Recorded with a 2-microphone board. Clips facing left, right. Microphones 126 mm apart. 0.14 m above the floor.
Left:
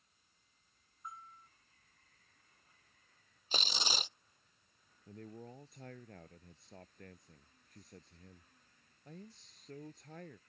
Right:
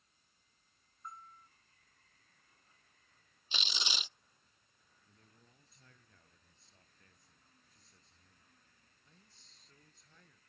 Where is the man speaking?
55° left (ahead or behind).